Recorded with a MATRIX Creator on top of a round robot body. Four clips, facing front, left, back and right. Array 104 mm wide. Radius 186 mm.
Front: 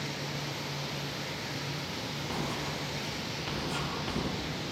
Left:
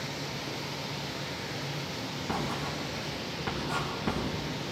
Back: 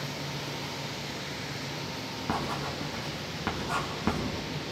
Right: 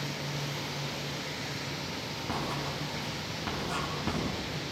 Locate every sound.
2.3 s writing: straight behind, 3 m